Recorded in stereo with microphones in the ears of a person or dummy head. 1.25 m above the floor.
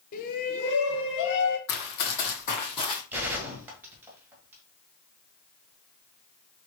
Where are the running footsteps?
55° left (ahead or behind), 2.5 m; by 3.0 s 20° left (ahead or behind), 2 m.